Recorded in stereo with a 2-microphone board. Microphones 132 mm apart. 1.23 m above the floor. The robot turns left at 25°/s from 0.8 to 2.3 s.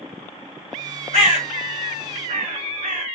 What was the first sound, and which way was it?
A bird, 55° right (ahead or behind).